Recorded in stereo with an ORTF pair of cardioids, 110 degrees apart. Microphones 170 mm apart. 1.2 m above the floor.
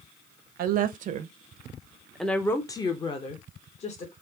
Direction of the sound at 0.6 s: 65° right.